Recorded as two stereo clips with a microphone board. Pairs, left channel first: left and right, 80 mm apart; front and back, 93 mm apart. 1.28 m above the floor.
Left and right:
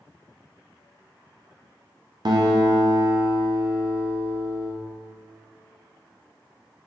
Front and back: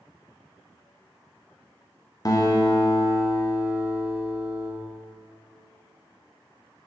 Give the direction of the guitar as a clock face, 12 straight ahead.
2 o'clock.